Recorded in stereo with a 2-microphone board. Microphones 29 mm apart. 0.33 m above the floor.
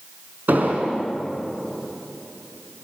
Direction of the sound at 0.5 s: 70° right (ahead or behind).